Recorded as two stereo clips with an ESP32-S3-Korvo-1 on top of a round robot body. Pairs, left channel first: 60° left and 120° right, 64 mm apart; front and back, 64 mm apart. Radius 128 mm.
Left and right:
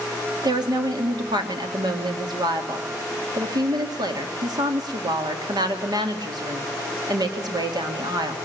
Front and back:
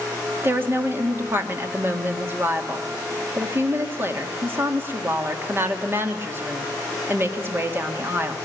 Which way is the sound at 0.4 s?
125° right.